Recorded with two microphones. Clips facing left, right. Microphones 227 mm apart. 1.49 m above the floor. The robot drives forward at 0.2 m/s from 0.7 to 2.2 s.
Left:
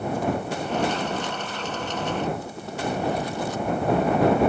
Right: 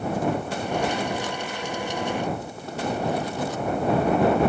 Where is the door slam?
No door slam in this recording.